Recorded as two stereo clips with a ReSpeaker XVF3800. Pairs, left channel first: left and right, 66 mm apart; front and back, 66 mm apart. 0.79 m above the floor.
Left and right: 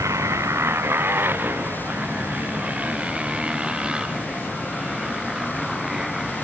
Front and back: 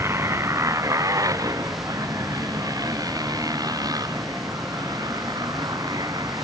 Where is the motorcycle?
135° right; by 6.5 s straight behind.